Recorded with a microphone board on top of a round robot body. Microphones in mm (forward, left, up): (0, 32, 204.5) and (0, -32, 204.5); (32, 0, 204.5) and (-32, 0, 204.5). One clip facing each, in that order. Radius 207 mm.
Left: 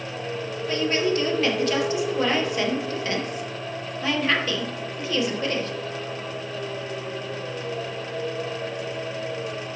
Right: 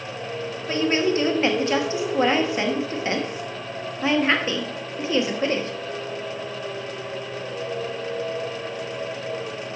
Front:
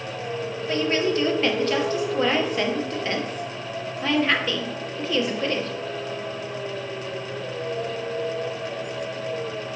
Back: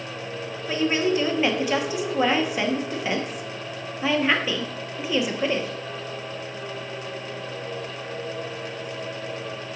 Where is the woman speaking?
115° right, 1.2 m.